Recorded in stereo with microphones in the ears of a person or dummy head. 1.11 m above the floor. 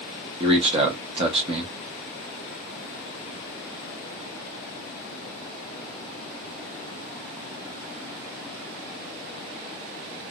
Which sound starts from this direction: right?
A man speaking, at 0.4 s.